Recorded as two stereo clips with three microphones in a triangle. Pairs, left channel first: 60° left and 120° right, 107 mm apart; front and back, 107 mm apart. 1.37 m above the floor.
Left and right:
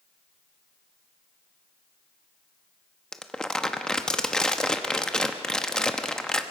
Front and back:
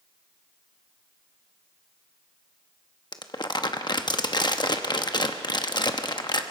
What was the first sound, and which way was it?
Crumpling, 20° right.